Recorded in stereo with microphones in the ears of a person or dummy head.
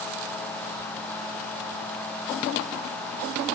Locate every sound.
Only background noise.